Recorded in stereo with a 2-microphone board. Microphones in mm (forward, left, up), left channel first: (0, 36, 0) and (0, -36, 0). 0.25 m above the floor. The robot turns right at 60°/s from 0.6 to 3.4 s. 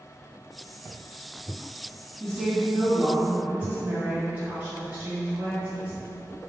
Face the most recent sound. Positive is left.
turn(degrees=-140)